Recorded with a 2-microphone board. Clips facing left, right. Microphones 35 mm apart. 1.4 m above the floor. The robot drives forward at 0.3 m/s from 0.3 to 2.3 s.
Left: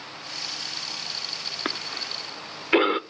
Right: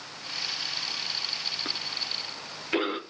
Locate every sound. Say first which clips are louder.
1.6 s a cough: left 2 dB; 35° left (ahead or behind), 0.5 m; by 3.0 s 30° left (ahead or behind), 0.7 m